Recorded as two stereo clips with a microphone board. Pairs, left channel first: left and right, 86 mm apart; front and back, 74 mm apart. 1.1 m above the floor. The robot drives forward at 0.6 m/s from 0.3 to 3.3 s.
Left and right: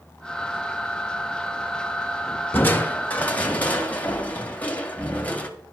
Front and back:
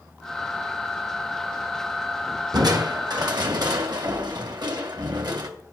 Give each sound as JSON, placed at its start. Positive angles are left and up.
{"t": 2.5, "sound": "crushing", "azimuth_deg": 155, "distance_m": 1.3}